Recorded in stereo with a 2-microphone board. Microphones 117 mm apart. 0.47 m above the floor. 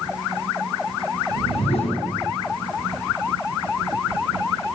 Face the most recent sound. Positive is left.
turn(degrees=70)  # may be behind; listen again after turning